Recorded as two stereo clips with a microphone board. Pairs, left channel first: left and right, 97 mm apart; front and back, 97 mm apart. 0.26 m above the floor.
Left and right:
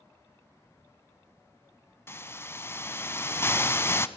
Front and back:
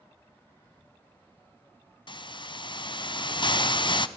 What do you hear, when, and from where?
2.1 s a hiss: 25° left, 0.9 m